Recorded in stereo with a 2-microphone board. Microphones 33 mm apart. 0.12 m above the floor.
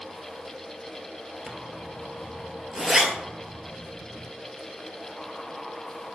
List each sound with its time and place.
1.5 s a zipper: 10° right (ahead or behind), 0.6 m